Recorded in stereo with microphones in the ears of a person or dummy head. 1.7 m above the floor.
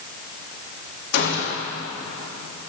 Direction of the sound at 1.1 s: 55° left (ahead or behind).